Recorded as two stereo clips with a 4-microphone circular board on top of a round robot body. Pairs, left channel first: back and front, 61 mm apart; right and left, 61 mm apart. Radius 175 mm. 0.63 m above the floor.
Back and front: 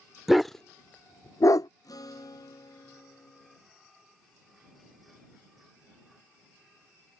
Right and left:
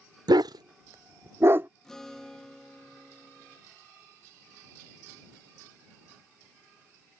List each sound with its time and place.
0.3 s a dog barking: 85° left; by 1.7 s 150° left
1.8 s a guitar: 175° right